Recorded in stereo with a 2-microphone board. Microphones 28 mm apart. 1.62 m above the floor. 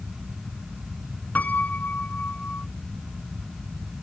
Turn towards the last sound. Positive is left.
turn(degrees=70)  # may be behind; listen again after turning